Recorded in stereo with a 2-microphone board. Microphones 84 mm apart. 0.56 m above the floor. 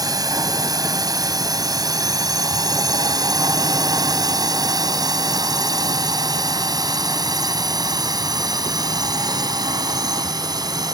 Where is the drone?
45° right (ahead or behind); by 10.9 s 50° right (ahead or behind).